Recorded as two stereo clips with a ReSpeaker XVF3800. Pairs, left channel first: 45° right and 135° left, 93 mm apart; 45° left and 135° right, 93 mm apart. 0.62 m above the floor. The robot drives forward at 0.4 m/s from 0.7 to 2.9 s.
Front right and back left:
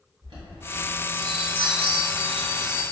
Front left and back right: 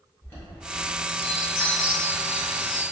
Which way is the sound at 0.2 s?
105° left.